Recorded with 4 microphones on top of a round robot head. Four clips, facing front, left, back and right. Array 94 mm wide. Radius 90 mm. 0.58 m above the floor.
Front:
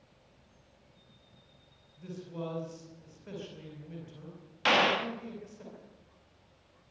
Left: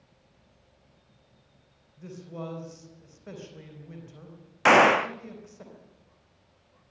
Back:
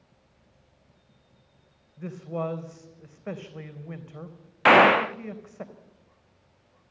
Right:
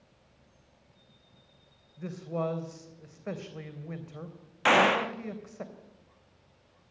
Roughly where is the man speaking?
Behind right.